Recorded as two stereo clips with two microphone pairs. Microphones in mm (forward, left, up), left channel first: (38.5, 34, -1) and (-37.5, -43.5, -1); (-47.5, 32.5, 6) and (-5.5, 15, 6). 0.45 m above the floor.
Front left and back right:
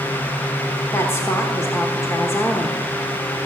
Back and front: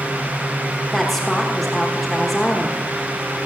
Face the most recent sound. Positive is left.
turn(degrees=80)